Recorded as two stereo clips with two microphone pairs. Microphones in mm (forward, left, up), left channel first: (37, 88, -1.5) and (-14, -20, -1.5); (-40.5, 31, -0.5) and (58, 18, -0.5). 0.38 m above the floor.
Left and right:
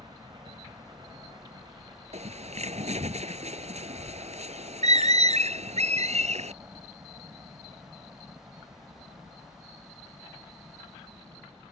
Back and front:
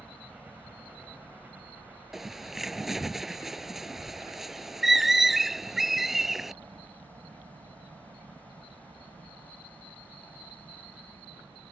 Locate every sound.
0.0 s a helicopter: 80° right; by 11.7 s 45° right
2.1 s a bird: 95° right